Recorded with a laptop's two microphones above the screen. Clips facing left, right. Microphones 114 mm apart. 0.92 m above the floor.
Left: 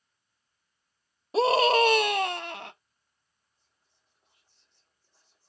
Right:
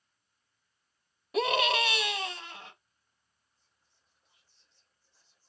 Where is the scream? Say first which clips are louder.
Left 7 dB; 30° left (ahead or behind), 0.9 m; by 2.7 s 70° left (ahead or behind), 0.7 m.